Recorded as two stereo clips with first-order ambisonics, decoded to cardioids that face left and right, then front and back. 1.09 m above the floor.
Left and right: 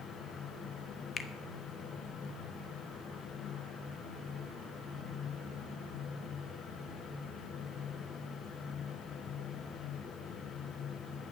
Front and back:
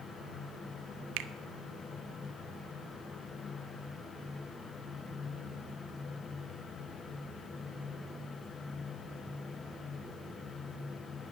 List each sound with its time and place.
1.2 s a finger snap: 155° left, 0.8 m